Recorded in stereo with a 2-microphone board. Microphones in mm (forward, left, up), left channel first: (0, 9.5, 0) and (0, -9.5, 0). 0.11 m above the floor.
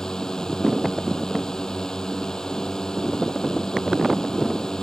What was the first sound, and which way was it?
A drone, 35° left (ahead or behind).